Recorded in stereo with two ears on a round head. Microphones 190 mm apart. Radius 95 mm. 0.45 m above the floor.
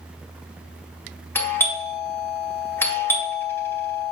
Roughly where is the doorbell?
Centre.